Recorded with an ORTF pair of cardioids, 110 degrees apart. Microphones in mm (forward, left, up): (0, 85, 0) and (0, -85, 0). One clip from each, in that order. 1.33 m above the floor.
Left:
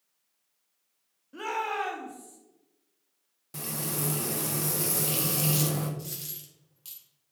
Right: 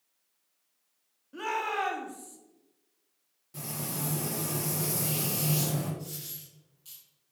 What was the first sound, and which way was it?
A shout, 5° left.